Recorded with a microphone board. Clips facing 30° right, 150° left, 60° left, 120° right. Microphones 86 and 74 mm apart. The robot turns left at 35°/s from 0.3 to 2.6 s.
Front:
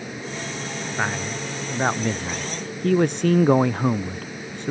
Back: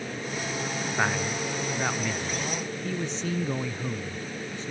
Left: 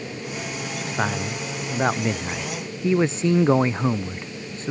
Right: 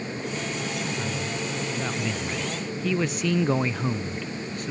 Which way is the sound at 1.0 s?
55° left.